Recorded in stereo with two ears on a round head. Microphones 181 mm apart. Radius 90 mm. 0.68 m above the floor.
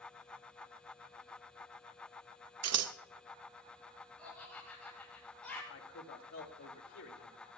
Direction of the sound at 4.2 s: 5° left (ahead or behind).